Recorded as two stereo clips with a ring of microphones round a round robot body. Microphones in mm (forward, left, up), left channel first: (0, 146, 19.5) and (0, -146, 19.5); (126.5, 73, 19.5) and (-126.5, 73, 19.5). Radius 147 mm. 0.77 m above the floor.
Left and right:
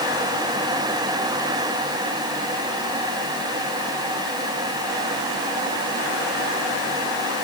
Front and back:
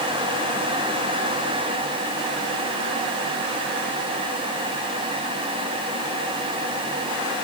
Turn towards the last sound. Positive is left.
No sound to turn to.